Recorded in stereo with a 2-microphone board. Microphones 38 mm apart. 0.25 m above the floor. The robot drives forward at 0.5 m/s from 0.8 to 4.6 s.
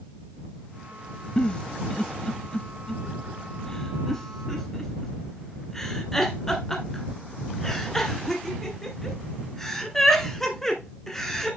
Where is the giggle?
25° left (ahead or behind), 0.5 m; by 11.6 s 10° left (ahead or behind), 1.5 m.